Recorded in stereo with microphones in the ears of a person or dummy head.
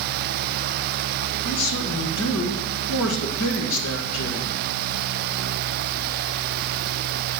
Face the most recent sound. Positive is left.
turn(degrees=80)